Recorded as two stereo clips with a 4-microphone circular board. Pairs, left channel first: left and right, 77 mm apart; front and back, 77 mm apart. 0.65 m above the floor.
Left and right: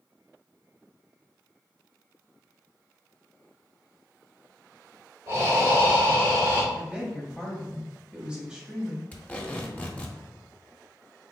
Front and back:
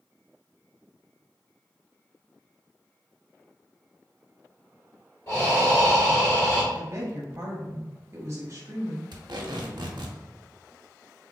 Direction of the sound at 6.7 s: 165° right.